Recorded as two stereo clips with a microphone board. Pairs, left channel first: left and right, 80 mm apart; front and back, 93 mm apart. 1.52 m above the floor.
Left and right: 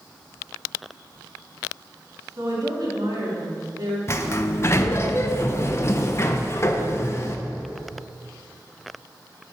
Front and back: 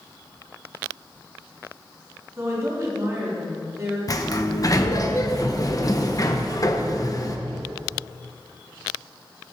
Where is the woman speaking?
125° right, 3.5 m.